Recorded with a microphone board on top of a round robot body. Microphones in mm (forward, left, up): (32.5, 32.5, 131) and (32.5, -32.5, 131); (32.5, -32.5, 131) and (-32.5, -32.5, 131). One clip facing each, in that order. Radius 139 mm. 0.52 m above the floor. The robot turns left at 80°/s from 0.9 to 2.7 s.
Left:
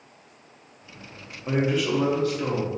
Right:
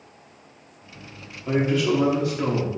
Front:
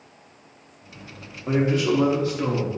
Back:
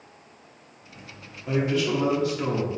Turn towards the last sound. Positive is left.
turn(degrees=-70)